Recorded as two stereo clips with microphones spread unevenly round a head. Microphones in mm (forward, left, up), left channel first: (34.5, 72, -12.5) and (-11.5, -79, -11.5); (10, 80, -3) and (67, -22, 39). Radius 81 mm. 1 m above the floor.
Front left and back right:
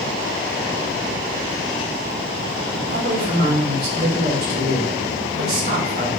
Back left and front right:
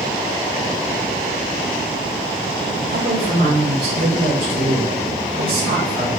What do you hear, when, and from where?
2.9 s a woman speaking: 70° right, 4 m